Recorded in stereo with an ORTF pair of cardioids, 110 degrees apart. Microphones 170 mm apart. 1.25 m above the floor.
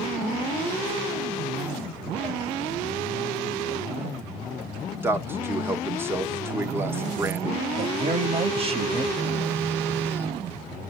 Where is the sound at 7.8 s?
35° right, 1.2 m.